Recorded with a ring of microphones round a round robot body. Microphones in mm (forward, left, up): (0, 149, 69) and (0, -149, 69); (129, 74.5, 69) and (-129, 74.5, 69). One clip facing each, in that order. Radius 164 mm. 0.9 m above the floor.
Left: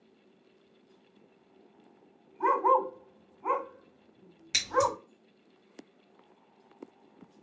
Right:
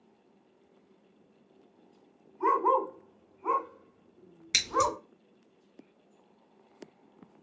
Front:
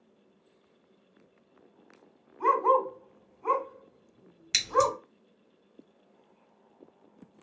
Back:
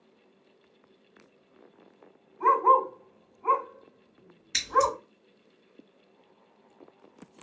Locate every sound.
2.4 s a dog barking: 40° left, 1.9 m
4.5 s scissors: 5° right, 1.4 m